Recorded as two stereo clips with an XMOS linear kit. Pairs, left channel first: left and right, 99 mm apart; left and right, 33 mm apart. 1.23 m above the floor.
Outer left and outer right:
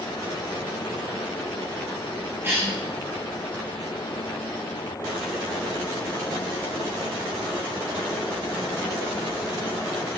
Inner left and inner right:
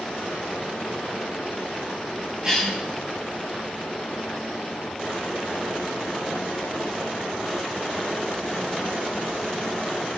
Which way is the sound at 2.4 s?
25° right (ahead or behind).